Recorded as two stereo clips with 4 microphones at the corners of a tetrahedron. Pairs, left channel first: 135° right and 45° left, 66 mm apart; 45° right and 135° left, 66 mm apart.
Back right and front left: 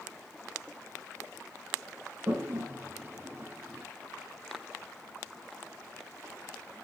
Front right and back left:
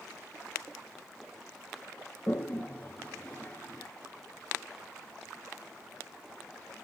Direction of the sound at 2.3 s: 5° left.